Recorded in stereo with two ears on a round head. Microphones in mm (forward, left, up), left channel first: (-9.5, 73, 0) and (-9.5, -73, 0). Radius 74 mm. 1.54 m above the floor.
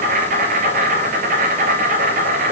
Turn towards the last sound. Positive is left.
turn(degrees=-50)  # may be behind; listen again after turning